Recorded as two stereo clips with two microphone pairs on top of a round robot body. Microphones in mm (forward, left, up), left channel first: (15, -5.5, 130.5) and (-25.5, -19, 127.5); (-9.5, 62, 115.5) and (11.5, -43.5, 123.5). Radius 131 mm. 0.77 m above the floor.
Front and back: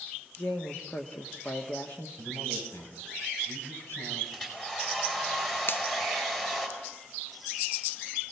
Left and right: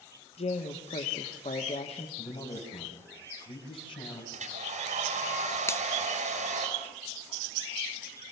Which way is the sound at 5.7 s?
45° left.